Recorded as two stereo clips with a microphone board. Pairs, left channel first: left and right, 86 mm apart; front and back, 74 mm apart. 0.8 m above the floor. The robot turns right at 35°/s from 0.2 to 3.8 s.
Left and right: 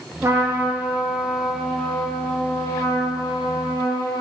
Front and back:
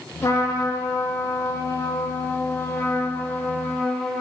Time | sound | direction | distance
0.2 | a trumpet | 45° right | 1.3 m